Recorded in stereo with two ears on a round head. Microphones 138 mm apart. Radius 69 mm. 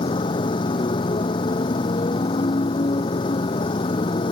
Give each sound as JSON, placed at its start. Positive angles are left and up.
{"t": 0.0, "sound": "a motorcycle", "side_deg": 30}